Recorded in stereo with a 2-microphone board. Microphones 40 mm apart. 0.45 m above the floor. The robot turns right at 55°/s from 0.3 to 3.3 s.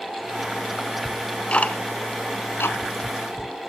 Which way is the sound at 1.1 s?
5° left (ahead or behind).